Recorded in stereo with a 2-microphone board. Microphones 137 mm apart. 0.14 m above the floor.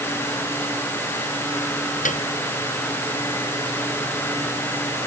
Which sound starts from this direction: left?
A piano, at 2.0 s.